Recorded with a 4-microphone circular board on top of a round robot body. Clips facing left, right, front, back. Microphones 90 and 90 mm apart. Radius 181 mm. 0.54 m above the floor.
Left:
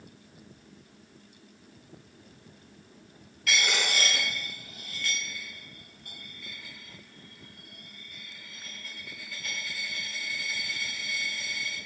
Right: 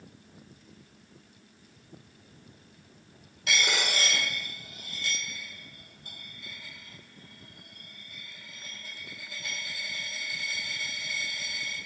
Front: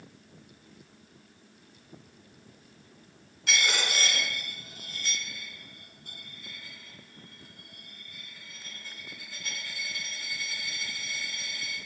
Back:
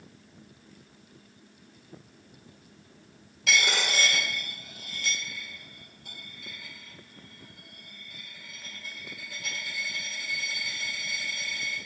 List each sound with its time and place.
3.5 s a dropped coin: 155° right, 1.5 m